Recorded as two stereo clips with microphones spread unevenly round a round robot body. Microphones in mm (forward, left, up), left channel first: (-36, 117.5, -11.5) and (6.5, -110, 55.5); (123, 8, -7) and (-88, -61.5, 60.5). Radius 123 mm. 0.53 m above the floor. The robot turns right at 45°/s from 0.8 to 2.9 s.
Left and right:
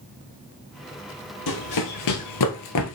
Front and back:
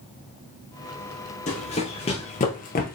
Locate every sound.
1.5 s running footsteps: 85° left, 1.0 m; by 3.0 s 75° left, 0.8 m